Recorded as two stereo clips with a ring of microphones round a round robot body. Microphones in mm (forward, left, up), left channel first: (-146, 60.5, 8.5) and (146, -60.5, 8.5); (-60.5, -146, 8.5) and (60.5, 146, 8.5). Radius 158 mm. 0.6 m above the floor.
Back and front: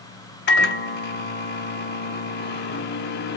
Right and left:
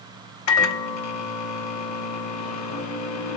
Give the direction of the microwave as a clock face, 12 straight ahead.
5 o'clock.